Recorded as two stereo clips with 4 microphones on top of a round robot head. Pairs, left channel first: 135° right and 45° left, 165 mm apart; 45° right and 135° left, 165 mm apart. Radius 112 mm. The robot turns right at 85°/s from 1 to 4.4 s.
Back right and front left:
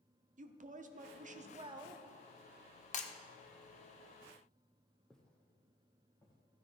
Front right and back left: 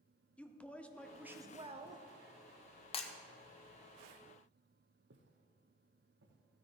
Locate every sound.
0.4 s a woman speaking: 35° left, 1.0 m; by 2.0 s 125° left, 1.0 m
2.9 s breaking glass: 100° right, 1.1 m; by 3.1 s 85° right, 1.1 m
5.1 s footsteps: 140° left, 1.0 m; by 6.4 s 150° left, 2.5 m